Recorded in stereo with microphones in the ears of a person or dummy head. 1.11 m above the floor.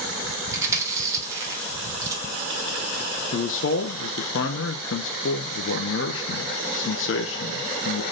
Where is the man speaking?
60° left (ahead or behind), 0.7 m.